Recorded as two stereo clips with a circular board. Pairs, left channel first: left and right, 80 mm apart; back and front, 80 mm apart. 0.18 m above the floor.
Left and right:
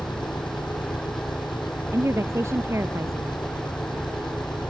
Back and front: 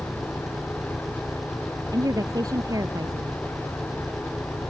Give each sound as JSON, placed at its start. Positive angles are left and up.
{"t": 0.0, "sound": "an engine running", "azimuth_deg": 85}
{"t": 1.9, "sound": "a woman speaking", "azimuth_deg": -35}